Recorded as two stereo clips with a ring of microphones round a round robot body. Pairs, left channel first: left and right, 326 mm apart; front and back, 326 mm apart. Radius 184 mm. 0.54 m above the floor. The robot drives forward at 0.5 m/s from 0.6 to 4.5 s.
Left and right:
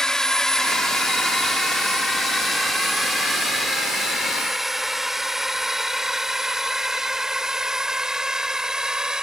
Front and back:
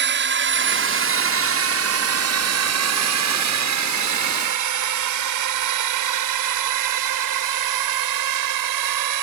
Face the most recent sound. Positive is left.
turn(degrees=180)